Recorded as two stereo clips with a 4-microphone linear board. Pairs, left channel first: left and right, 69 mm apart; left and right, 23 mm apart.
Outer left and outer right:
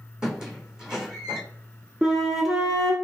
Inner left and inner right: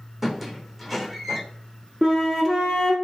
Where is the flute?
5° right (ahead or behind), 1.3 m.